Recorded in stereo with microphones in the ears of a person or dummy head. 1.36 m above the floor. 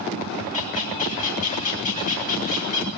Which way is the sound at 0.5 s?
40° left (ahead or behind).